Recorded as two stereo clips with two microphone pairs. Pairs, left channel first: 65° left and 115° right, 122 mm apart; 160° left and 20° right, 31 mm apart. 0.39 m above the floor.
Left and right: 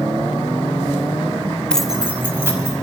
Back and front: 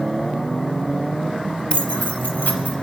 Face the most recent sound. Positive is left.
turn(degrees=180)